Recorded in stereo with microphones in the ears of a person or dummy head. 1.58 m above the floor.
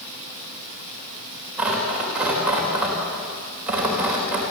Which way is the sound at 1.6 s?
5° right (ahead or behind).